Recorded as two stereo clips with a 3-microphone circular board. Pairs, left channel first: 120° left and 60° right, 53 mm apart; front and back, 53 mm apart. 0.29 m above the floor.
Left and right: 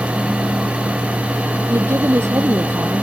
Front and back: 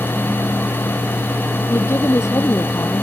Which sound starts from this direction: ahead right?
A woman speaking, at 1.7 s.